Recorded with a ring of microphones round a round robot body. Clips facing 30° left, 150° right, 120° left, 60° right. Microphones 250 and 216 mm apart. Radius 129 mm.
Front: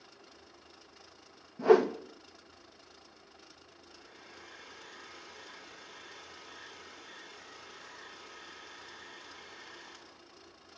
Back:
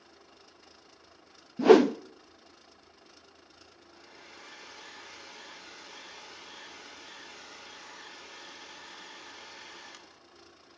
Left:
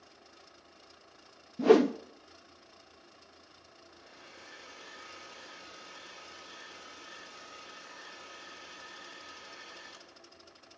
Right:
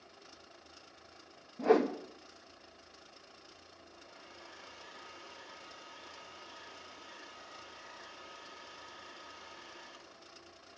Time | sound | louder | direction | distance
1.6 | a whoosh | back 5 dB, left 6 dB | 175° left | 0.5 m
3.9 | a hair dryer | back 1 dB, left 1 dB | 175° right | 2 m